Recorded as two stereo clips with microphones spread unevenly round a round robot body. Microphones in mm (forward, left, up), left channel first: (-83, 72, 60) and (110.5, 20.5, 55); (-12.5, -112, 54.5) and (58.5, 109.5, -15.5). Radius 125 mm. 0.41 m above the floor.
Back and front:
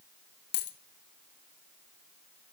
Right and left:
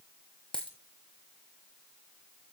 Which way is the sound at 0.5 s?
170° left.